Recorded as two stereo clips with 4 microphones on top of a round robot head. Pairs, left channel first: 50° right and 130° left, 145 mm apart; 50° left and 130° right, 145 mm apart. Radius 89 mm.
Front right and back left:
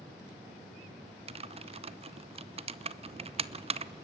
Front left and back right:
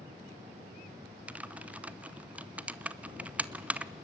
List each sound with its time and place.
1.3 s typing on a keyboard: 150° left, 0.8 m